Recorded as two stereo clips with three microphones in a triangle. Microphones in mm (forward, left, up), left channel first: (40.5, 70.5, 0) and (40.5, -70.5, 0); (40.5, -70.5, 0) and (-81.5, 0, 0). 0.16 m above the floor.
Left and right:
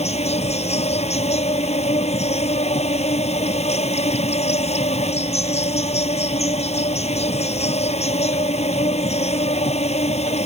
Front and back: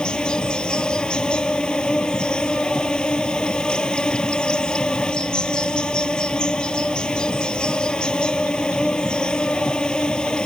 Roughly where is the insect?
Ahead left.